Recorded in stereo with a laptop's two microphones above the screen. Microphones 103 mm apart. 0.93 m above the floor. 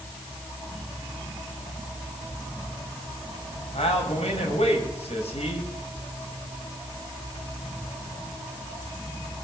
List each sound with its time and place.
3.7 s a man speaking: 80° left, 4.5 m